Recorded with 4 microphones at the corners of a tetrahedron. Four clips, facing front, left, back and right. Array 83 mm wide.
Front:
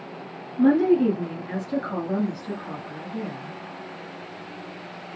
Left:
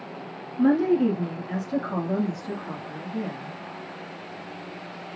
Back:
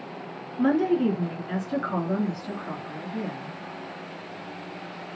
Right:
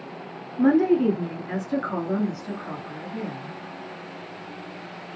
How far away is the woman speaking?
About 1.9 m.